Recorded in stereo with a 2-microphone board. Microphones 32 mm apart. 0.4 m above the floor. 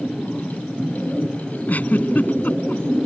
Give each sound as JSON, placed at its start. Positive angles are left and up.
{"t": 1.7, "sound": "a giggle", "side_deg": 55}